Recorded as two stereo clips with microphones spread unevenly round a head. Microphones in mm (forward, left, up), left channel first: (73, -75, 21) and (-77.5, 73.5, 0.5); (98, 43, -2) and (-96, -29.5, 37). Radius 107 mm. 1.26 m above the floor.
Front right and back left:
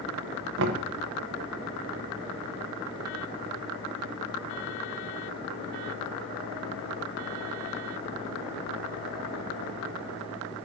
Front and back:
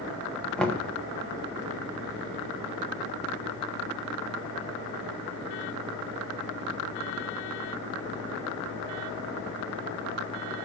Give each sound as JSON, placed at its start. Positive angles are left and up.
{"t": 0.6, "sound": "knocking", "azimuth_deg": 105, "distance_m": 0.9}